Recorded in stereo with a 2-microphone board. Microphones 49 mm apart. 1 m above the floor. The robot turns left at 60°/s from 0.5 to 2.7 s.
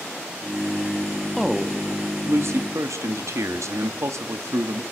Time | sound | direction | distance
1.4 | a man speaking | straight ahead | 1.6 m